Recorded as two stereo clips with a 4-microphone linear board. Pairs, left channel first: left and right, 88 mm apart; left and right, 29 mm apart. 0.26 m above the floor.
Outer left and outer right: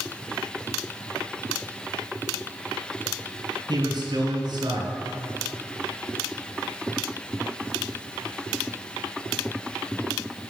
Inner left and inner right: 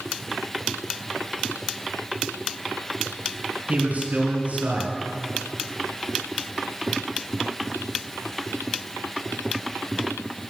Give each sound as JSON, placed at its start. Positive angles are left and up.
{"t": 3.7, "sound": "a man speaking", "side_deg": -60, "distance_m": 3.5}